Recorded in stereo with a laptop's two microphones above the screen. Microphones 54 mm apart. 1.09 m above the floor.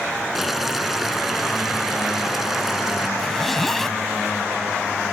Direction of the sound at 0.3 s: 5° right (ahead or behind).